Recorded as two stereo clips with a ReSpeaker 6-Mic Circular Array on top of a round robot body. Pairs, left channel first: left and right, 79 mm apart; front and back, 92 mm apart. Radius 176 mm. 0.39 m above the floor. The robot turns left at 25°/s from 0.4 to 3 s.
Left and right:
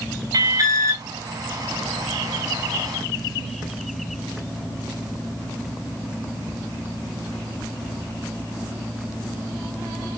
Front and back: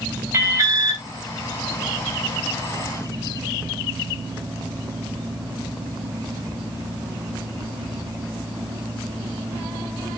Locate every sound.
0.3 s an alarm: 120° right, 5.5 m; by 1.0 s 135° right, 5.5 m